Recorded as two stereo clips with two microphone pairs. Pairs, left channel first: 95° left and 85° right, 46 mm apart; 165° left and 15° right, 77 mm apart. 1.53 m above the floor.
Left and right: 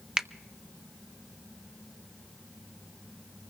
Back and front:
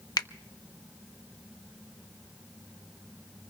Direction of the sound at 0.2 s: 160° right.